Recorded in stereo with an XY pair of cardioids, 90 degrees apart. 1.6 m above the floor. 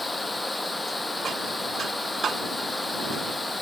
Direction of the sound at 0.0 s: 20° left.